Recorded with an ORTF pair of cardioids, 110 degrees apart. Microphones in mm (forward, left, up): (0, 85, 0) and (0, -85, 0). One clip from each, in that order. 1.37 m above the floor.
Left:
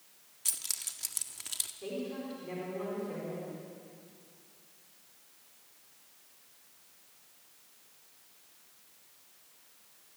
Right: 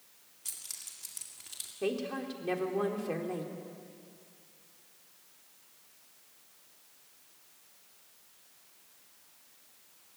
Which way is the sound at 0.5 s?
45° left.